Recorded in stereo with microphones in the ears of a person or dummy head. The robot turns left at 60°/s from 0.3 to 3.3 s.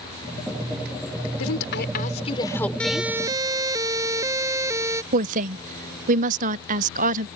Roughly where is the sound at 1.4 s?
Left.